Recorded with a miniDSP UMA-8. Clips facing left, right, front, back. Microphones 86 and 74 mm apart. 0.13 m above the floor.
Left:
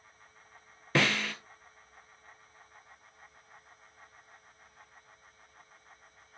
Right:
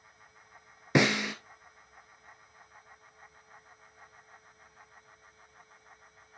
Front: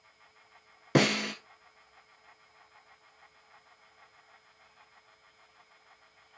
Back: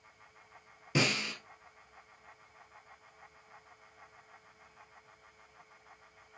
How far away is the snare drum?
About 0.7 m.